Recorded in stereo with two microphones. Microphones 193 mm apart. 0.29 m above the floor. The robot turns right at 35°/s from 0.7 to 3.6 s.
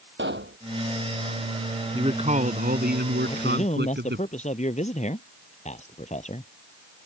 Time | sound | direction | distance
0.2 | a pop | 75° right (ahead or behind) | ?
1.9 | a man speaking | 150° right | ?
3.3 | a man speaking | 25° left (ahead or behind) | ?